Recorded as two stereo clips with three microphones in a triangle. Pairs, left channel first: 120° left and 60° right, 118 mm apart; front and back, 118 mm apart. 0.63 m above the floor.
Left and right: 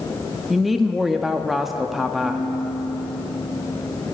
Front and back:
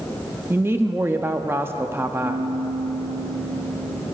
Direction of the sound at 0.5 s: 145° right.